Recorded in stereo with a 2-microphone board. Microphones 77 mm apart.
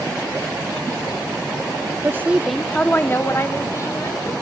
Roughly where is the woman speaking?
Right.